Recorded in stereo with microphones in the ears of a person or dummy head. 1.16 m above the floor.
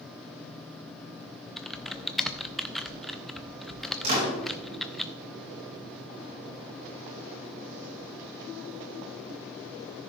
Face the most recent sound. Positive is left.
turn(degrees=-45)  # may be behind; listen again after turning